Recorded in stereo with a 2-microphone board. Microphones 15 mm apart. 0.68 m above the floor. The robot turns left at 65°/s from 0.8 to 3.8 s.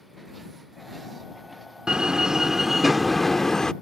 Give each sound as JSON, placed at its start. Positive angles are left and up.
{"t": 1.9, "sound": "a door slam", "azimuth_deg": -105}